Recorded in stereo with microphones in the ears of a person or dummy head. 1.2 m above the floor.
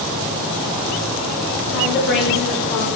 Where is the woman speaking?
70° left (ahead or behind), 2 m; by 2.9 s 55° left (ahead or behind), 3.5 m.